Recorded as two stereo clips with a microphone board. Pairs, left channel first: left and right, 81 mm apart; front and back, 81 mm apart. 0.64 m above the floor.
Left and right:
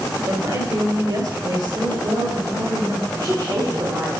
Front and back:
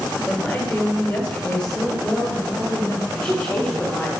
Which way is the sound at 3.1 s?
70° right.